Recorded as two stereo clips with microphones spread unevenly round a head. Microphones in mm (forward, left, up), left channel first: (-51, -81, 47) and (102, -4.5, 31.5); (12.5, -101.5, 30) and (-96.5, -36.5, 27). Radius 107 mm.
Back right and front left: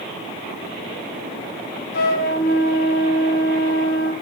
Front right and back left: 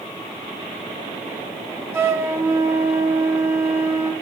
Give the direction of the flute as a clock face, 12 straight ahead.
5 o'clock.